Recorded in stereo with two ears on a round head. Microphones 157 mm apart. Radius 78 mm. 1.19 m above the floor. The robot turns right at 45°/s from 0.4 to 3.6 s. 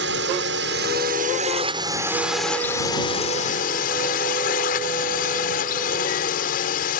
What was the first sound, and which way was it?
A drone, 90° right.